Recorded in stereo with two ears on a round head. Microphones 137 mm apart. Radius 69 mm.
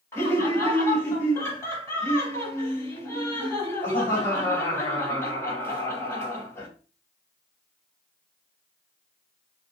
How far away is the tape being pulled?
I don't hear tape being pulled.